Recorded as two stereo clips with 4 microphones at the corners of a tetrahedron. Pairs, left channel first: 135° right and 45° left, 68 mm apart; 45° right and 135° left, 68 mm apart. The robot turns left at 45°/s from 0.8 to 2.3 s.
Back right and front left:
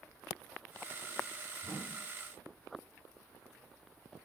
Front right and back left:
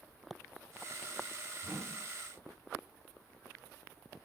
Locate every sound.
1.6 s a whoosh: 150° right, 4.5 m; by 2.0 s 165° right, 4.5 m